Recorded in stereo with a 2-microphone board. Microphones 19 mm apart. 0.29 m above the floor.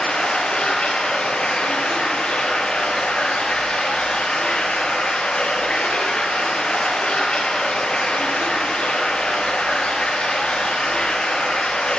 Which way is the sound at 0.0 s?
60° left (ahead or behind).